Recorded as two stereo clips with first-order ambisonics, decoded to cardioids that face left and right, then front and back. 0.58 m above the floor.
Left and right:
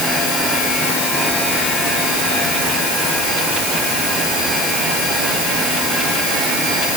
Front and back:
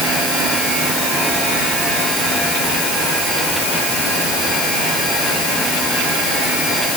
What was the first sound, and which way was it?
Only background noise.